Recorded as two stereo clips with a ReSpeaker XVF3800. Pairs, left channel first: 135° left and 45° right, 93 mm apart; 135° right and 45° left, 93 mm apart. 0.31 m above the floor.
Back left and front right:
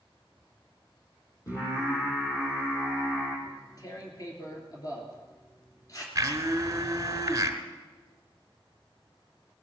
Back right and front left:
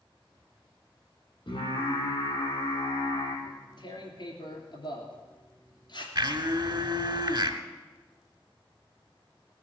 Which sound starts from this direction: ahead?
A blender, at 6.2 s.